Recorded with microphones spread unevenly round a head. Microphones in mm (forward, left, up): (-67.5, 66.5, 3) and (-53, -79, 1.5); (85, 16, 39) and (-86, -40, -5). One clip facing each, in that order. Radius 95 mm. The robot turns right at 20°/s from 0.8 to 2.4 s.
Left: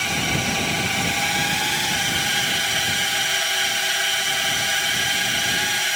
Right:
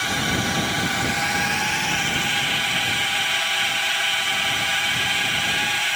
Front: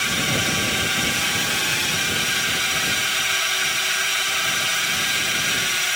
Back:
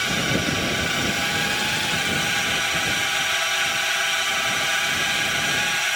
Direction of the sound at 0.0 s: 20° left.